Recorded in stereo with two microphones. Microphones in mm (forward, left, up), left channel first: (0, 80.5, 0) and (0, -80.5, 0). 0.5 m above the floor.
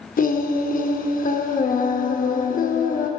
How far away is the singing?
About 0.6 m.